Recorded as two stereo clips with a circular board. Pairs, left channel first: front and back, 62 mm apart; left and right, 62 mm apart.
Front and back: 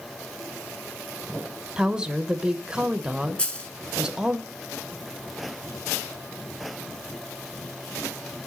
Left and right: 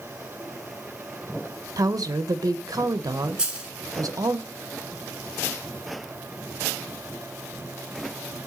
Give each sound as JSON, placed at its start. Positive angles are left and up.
{"t": 1.8, "sound": "a woman speaking", "azimuth_deg": -100, "distance_m": 0.6}
{"t": 3.4, "sound": "a dropped coin", "azimuth_deg": -40, "distance_m": 1.2}